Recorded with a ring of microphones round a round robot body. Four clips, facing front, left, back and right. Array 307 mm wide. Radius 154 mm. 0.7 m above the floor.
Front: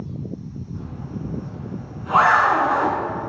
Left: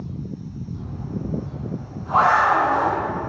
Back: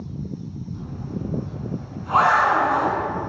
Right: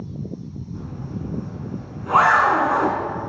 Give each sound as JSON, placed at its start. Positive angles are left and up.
{"t": 0.7, "sound": "a zipper", "azimuth_deg": -80, "distance_m": 2.5}